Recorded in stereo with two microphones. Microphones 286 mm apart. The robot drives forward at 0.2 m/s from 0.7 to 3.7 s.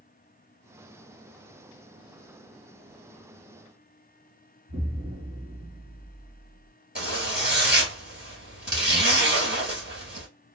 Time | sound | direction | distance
4.7 | an explosion | 40° right (ahead or behind) | 1.4 m
7.0 | a zipper | 35° right (ahead or behind) | 2 m